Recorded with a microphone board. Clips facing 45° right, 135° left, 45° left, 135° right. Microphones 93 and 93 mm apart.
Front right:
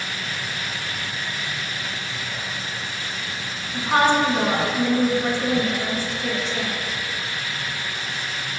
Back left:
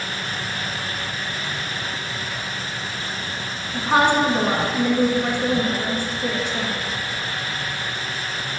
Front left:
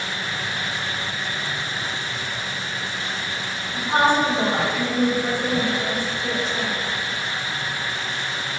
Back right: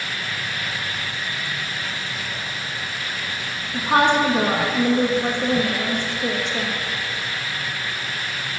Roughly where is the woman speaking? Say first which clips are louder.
Back left 1 dB, back right 2 dB; behind right.